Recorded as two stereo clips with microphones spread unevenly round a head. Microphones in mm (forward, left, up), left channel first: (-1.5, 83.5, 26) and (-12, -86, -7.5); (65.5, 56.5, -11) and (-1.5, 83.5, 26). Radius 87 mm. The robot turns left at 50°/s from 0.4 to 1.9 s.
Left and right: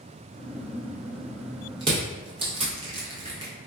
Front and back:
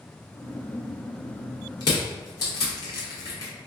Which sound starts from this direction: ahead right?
Crushing, at 1.8 s.